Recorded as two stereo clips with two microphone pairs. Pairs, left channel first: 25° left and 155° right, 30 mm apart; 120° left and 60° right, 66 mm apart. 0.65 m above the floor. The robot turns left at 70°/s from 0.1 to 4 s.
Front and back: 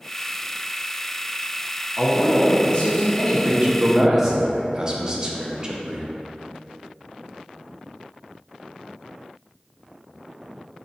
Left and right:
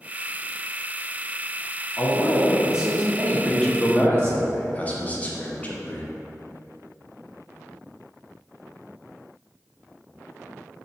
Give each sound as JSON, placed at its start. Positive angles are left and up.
{"t": 2.0, "sound": "a man speaking", "azimuth_deg": 70, "distance_m": 1.0}
{"t": 3.3, "sound": "a man speaking", "azimuth_deg": -150, "distance_m": 0.6}